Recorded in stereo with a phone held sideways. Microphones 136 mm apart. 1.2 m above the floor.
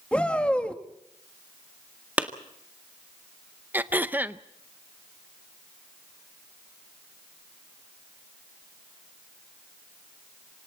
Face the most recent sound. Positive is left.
turn(degrees=-15)  # may be behind; listen again after turning